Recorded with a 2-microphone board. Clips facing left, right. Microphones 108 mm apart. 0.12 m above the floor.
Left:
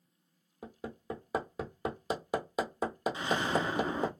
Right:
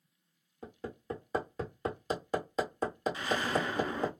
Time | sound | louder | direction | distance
0.6 | hammering | right 1 dB | 10° left (ahead or behind) | 1.1 m
3.1 | an explosion | left 2 dB | 25° left (ahead or behind) | 0.5 m